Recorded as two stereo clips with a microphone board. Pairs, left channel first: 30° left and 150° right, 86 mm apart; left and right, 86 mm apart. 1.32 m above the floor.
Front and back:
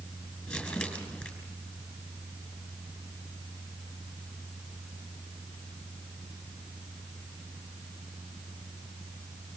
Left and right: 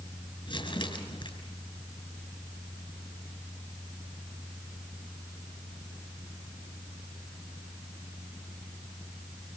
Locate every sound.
0.5 s crumpling: 100° left, 6.5 m